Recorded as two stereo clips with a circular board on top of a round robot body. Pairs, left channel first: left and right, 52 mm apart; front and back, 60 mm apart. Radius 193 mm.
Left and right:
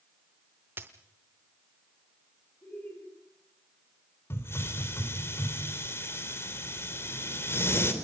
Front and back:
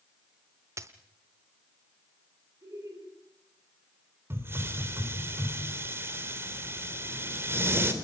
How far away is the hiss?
About 3.5 m.